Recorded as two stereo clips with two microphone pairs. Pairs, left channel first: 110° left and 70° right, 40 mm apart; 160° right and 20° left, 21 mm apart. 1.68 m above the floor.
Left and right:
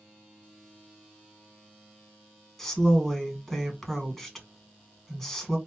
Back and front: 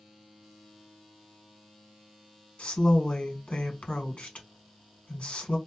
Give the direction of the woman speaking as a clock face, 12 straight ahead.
5 o'clock.